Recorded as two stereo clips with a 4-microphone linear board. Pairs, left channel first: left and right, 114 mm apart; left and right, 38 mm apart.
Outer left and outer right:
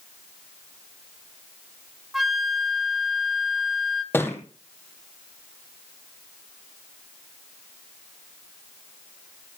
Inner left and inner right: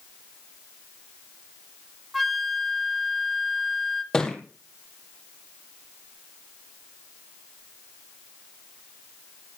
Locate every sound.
2.1 s a flute: centre (ahead or behind), 0.9 m
4.1 s a thud: 20° left (ahead or behind), 2.0 m